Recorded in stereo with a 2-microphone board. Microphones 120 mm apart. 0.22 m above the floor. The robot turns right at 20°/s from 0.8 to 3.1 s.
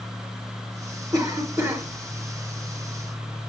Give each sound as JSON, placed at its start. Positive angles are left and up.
{"t": 1.1, "sound": "a cough", "side_deg": -30, "distance_m": 3.0}